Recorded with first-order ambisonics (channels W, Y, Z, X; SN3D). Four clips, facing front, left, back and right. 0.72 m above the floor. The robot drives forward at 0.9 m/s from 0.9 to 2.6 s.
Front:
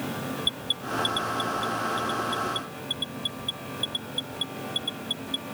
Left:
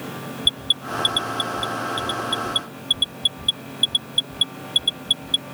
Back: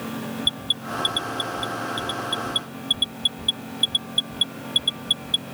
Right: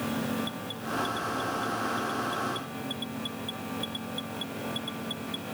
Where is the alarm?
105° left; by 5.4 s 120° left.